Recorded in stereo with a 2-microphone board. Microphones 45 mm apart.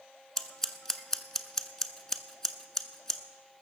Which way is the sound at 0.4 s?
10° left (ahead or behind).